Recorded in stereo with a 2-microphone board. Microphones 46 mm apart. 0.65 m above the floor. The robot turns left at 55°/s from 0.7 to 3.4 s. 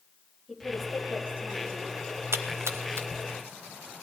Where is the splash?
70° right (ahead or behind), 0.9 m; by 3.1 s 55° right (ahead or behind), 0.9 m.